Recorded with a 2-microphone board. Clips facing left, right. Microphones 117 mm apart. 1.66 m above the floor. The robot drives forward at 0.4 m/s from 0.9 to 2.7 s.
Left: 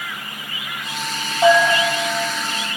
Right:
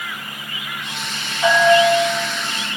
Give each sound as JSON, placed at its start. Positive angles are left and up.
{"t": 1.4, "sound": "a bell", "side_deg": 80, "distance_m": 3.5}